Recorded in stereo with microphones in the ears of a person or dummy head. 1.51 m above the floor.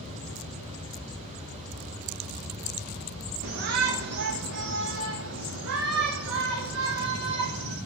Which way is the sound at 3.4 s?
50° right (ahead or behind).